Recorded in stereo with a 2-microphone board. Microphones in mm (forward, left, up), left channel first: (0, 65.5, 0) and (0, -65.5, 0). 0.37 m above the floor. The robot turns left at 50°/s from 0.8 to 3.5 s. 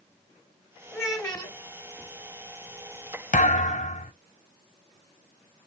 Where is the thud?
75° left (ahead or behind), 0.5 m; by 4.1 s 70° left (ahead or behind), 0.5 m.